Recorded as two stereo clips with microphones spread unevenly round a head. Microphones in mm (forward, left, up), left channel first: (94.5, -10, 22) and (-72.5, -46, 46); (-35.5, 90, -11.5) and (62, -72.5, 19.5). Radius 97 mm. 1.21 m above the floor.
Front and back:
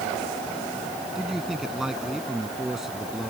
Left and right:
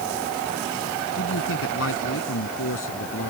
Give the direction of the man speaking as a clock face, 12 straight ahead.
9 o'clock.